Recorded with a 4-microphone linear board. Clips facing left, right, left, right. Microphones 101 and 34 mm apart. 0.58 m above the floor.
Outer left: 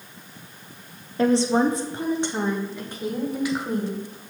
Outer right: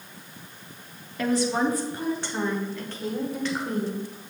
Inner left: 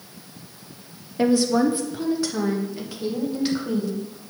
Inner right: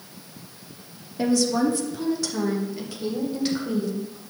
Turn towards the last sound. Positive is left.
turn(degrees=10)  # may be behind; listen again after turning